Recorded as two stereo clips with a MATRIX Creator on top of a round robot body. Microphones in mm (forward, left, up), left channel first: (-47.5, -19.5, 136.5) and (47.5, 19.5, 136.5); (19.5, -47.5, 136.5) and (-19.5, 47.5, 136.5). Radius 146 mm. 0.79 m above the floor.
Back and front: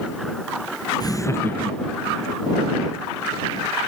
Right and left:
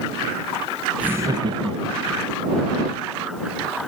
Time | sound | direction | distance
1.0 | laughter | 175° right | ?